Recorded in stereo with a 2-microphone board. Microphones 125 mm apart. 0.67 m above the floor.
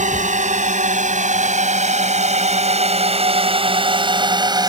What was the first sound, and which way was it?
A drone, 75° right (ahead or behind).